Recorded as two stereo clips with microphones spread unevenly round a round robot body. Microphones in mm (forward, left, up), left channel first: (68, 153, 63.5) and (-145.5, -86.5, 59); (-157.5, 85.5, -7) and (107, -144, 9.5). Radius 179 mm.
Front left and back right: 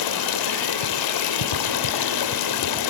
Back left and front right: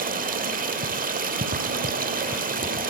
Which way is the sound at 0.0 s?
30° left.